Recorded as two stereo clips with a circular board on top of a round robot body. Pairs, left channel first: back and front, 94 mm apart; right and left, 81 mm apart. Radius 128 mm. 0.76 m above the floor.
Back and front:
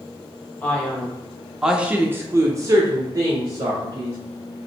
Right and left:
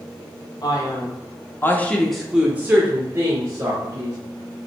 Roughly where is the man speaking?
Right.